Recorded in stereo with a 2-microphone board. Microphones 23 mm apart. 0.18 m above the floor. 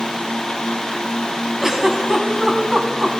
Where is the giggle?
25° right (ahead or behind), 1.3 m.